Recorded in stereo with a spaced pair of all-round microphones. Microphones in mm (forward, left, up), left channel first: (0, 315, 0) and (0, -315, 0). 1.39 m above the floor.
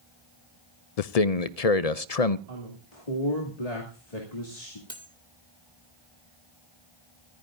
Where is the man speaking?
70° left (ahead or behind), 0.6 m.